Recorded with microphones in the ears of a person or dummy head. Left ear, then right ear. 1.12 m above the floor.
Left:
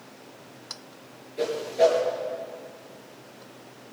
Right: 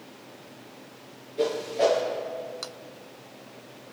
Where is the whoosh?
25° left (ahead or behind), 7 m.